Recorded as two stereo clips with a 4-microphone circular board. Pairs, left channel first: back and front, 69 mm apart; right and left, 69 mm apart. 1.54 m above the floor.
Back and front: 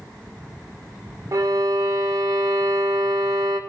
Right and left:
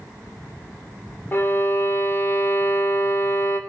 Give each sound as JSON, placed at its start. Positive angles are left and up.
{"t": 1.3, "sound": "a violin", "azimuth_deg": -35, "distance_m": 0.6}